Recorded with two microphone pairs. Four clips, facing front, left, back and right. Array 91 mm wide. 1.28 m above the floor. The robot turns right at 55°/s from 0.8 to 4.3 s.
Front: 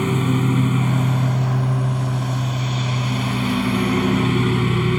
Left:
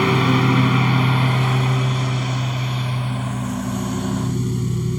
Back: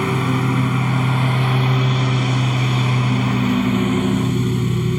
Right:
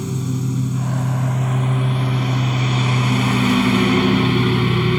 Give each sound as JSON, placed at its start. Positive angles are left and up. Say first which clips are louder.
{"t": 0.0, "sound": "a lawn mower", "louder": "left 8 dB, back 1 dB", "azimuth_deg": 105}